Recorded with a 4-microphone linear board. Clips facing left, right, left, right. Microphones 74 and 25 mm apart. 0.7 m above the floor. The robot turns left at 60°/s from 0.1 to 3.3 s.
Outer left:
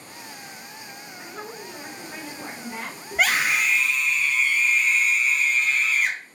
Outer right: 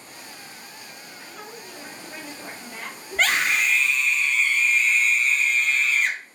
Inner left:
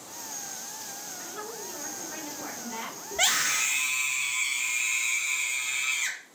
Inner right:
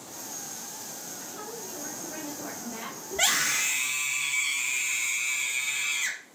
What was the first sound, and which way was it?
A woman speaking, 155° left.